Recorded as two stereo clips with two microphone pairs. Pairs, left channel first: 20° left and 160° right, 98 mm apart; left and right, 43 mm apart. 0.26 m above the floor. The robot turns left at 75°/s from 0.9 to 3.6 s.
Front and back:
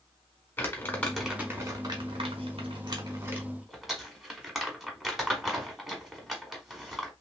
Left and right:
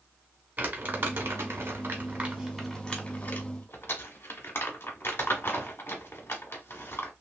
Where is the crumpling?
45° right, 1.1 m; by 7.1 s 110° left, 1.1 m.